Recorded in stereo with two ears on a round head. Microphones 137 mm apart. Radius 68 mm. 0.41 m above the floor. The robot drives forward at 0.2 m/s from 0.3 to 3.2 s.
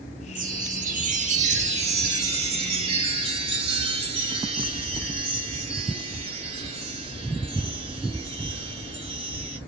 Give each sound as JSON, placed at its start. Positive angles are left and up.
{"t": 0.3, "sound": "a chime", "side_deg": -55, "distance_m": 0.9}